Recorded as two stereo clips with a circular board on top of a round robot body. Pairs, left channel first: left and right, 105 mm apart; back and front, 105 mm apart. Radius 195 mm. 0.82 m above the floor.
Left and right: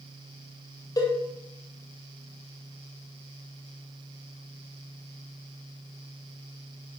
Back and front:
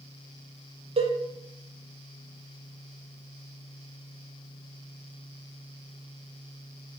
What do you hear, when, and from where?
1.0 s a cowbell: 35° left, 0.7 m